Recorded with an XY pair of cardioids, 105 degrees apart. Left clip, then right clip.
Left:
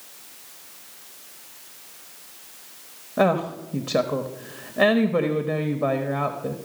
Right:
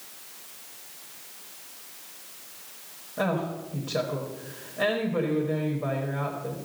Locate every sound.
3.2 s a woman speaking: 65° left, 1.0 m